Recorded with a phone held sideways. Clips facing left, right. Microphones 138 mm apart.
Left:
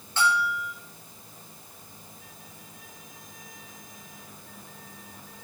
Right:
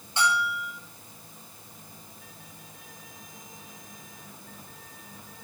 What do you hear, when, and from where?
0.2 s a bell: 15° right (ahead or behind), 7.5 m